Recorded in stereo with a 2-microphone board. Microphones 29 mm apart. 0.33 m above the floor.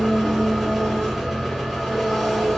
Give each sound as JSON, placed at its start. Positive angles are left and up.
{"t": 0.0, "sound": "an engine running", "side_deg": -5, "distance_m": 1.1}